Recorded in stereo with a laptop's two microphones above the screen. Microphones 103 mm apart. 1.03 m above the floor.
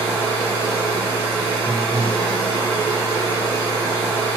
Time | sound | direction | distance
0.0 | a machine running | 75° left (ahead or behind) | 1.3 m